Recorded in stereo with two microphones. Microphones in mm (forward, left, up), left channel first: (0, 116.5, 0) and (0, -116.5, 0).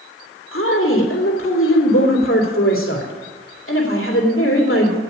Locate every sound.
0.5 s a woman speaking: 65° left (ahead or behind), 2.5 m